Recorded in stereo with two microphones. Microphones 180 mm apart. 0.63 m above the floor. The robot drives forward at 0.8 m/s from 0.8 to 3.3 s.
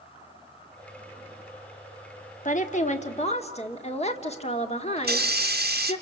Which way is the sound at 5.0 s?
60° right (ahead or behind).